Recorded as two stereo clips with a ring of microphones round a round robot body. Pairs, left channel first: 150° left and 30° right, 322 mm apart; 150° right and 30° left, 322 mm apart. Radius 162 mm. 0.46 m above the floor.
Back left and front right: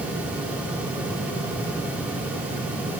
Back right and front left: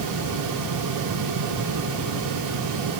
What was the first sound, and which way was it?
Only background noise.